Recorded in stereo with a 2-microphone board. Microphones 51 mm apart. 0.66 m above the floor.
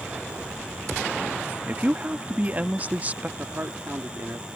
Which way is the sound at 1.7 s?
30° right (ahead or behind).